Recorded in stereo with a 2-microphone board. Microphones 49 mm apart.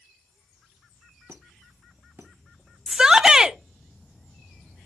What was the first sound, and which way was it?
A squeak, 60° right (ahead or behind).